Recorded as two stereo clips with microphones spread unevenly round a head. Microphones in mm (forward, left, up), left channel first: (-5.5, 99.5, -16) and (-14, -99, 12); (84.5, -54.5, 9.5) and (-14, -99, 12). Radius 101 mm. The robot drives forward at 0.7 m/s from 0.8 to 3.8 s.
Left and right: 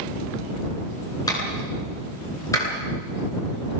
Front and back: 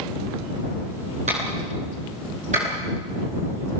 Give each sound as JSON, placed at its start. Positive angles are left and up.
{"t": 1.3, "sound": "a clap", "azimuth_deg": 160, "distance_m": 8.5}